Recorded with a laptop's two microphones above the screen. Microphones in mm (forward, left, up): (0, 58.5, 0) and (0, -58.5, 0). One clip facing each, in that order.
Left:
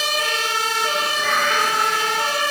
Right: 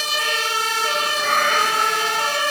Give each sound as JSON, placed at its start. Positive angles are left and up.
{"t": 1.2, "sound": "a cat meowing", "side_deg": -50, "distance_m": 2.5}